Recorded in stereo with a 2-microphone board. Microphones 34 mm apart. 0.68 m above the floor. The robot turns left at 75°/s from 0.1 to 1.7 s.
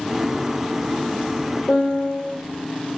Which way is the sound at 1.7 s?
65° left (ahead or behind).